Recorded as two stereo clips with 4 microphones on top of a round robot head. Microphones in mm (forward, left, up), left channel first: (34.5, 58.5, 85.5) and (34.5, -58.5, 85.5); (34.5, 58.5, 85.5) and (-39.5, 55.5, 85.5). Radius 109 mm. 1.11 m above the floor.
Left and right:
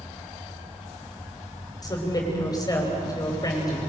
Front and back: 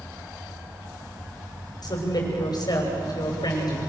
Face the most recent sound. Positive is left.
turn(degrees=30)